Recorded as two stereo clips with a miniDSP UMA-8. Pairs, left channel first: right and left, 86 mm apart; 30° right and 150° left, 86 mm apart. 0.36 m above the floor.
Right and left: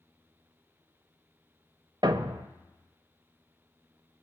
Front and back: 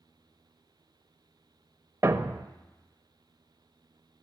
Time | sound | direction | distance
2.0 | a thud | 95° left | 0.6 m